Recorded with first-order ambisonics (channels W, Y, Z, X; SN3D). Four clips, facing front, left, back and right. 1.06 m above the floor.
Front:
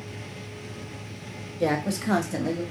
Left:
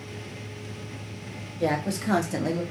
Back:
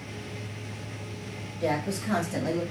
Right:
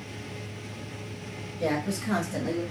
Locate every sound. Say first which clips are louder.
1.6 s a woman speaking: left 2 dB, front 3 dB; 20° left, 1.6 m; by 2.6 s 115° left, 0.8 m